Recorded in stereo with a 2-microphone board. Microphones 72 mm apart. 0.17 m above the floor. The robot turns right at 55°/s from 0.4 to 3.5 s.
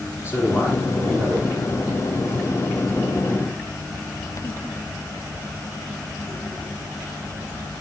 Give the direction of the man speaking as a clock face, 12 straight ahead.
7 o'clock.